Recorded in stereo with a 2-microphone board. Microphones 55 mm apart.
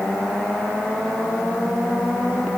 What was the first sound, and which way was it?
Only background noise.